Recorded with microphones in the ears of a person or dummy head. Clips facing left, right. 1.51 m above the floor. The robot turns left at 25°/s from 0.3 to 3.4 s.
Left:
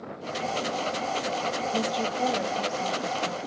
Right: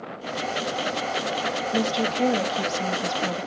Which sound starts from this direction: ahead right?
A woman speaking, at 1.7 s.